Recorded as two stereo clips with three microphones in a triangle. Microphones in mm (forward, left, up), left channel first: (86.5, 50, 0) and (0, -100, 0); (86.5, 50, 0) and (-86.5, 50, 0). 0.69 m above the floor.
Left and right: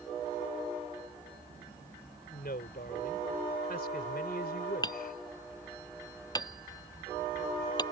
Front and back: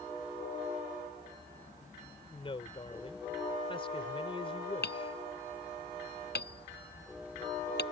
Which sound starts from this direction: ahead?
Hammering, at 4.8 s.